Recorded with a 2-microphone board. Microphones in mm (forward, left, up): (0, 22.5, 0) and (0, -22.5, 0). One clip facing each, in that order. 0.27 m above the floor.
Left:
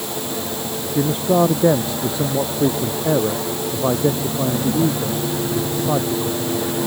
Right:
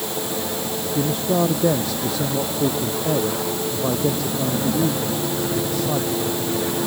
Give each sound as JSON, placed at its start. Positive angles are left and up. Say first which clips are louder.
{"t": 0.9, "sound": "a man speaking", "louder": "left 4 dB", "side_deg": 25}